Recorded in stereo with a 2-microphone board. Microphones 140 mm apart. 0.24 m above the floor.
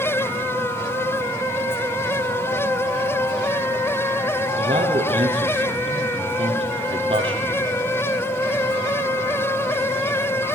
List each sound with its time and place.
4.6 s a man speaking: 40° right (ahead or behind), 6 m